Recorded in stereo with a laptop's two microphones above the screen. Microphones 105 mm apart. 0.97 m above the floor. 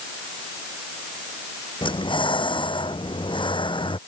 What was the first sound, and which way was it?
Breathing, 50° left (ahead or behind).